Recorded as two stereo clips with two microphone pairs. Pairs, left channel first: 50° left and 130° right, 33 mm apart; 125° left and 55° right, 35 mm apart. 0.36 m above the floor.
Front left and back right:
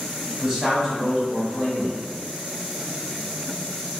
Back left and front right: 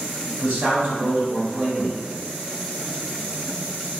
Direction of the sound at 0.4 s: 60° right.